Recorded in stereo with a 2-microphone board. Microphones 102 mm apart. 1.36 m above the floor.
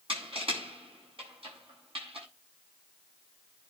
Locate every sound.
0.1 s crushing: 60° right (ahead or behind), 7 m